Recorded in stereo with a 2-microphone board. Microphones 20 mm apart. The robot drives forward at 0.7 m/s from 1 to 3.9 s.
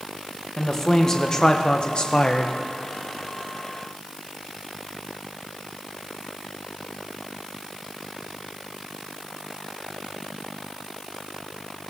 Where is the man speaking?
25° left (ahead or behind), 1.0 m; by 2.5 s 40° left (ahead or behind), 0.7 m.